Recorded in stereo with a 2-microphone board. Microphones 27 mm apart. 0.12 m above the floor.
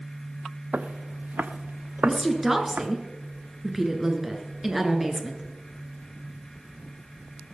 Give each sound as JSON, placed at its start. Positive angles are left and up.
{"t": 0.7, "sound": "footsteps", "side_deg": -65, "distance_m": 0.8}
{"t": 2.0, "sound": "a woman speaking", "side_deg": -10, "distance_m": 1.7}